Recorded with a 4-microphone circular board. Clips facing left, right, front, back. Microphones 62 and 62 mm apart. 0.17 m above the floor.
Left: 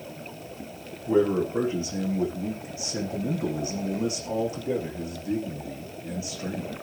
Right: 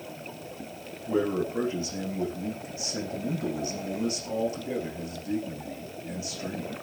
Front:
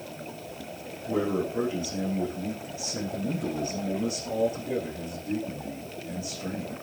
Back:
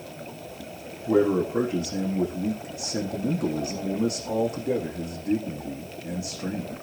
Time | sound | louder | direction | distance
1.1 | a man speaking | left 4 dB, back 6 dB | 160° left | 9.5 m